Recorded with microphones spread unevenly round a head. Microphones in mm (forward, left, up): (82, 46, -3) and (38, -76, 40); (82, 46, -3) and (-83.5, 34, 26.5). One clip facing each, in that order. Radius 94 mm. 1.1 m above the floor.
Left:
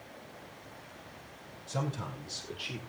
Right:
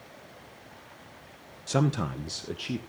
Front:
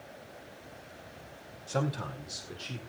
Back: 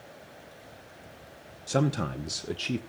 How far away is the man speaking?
About 0.9 m.